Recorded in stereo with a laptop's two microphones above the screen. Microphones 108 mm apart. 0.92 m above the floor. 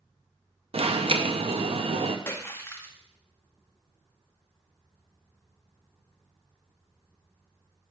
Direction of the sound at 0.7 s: 60° right (ahead or behind).